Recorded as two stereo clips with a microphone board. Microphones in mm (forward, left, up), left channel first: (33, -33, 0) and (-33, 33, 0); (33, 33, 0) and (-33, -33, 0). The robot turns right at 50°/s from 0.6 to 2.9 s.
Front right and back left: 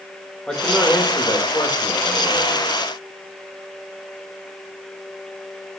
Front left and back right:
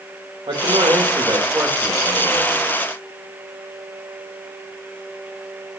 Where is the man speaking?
125° right, 4 m; by 2.5 s 30° right, 4 m.